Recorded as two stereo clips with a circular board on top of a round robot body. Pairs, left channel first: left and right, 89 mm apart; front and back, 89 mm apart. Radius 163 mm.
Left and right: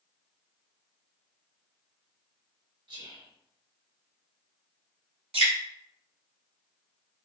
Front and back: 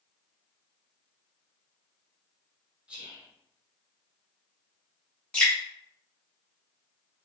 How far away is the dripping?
About 1.1 m.